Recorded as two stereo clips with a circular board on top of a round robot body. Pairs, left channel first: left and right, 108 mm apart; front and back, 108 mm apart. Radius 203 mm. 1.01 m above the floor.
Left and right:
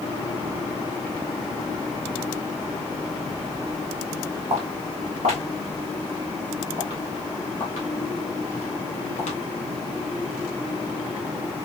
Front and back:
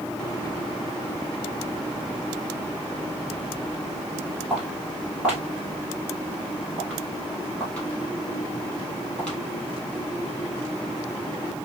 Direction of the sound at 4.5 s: 100° right.